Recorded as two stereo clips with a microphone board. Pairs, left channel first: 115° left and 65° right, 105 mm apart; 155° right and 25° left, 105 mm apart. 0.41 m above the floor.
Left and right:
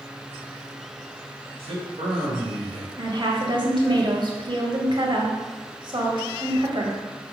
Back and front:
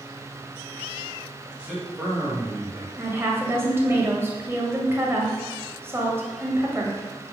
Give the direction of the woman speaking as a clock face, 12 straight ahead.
1 o'clock.